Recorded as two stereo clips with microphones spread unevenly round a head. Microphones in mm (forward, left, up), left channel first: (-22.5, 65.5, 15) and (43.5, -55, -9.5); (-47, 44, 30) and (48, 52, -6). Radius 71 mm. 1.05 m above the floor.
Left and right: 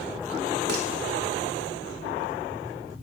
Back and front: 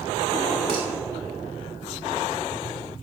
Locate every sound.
0.7 s dishes clattering: 45° right, 1.4 m